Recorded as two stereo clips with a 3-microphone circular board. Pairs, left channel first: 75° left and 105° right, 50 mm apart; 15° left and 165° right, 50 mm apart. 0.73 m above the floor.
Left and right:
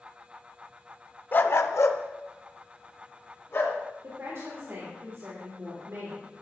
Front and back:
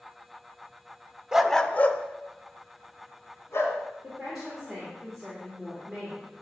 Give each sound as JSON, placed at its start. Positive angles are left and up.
{"t": 1.3, "sound": "a dog barking", "azimuth_deg": 120, "distance_m": 0.5}
{"t": 4.0, "sound": "a woman speaking", "azimuth_deg": -80, "distance_m": 2.5}